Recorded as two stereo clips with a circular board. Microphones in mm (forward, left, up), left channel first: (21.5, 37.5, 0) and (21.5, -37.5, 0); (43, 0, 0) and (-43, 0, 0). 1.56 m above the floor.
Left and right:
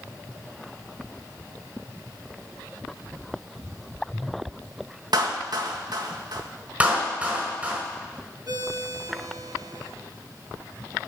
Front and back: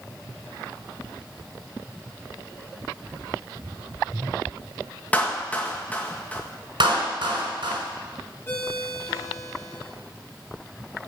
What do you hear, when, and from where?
5.1 s a clap: 75° right, 1.8 m
6.8 s a clap: 160° right, 5 m
8.5 s a ringtone: 65° right, 2 m